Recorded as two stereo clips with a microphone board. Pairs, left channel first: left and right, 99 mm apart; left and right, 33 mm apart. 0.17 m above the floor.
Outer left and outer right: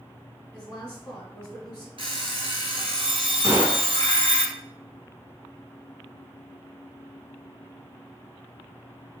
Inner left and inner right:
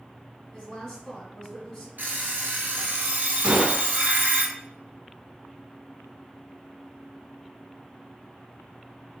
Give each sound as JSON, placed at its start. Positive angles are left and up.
{"t": 0.5, "sound": "a woman speaking", "side_deg": 15, "distance_m": 1.1}
{"t": 2.0, "sound": "an alarm clock", "side_deg": -70, "distance_m": 1.2}
{"t": 3.4, "sound": "a gunshot", "side_deg": -30, "distance_m": 0.8}